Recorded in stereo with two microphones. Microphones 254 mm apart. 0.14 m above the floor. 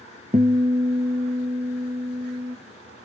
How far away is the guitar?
About 0.6 m.